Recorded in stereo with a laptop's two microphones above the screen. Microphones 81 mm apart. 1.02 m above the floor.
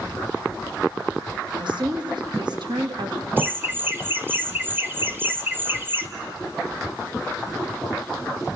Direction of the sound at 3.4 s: 25° right (ahead or behind).